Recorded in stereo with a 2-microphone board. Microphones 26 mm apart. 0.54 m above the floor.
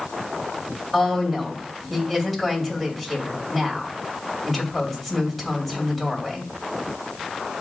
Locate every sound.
0.9 s a woman speaking: 10° left (ahead or behind), 2.5 m